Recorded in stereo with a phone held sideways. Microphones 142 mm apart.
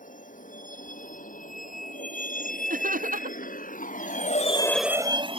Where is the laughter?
80° right.